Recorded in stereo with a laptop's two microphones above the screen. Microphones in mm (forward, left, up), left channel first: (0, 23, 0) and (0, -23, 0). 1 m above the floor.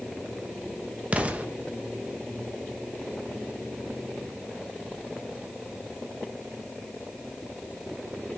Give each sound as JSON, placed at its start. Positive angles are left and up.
{"t": 1.1, "sound": "an explosion", "side_deg": -30, "distance_m": 0.9}